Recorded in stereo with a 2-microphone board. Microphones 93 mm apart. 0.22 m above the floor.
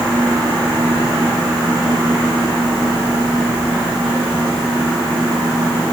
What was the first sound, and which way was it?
Only background noise.